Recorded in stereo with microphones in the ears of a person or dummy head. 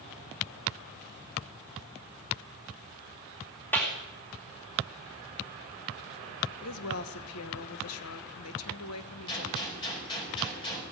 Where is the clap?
10° left (ahead or behind), 3 m.